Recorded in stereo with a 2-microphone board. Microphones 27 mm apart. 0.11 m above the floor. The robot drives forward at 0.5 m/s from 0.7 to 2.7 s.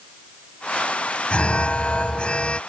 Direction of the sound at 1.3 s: 45° left (ahead or behind).